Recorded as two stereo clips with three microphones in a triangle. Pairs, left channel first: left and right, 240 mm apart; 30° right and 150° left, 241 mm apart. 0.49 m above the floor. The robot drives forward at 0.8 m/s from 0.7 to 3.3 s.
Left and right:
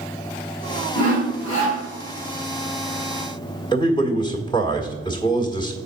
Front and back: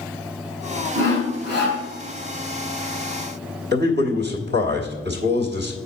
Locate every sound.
0.9 s sawing: 100° left, 4 m; by 1.8 s 110° left, 4 m
3.7 s a man speaking: 155° left, 1.5 m